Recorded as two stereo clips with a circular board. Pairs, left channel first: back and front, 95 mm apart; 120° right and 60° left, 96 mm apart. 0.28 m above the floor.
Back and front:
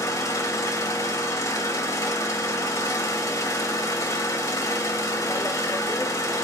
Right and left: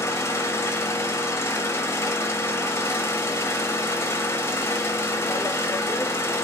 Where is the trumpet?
No trumpet in this recording.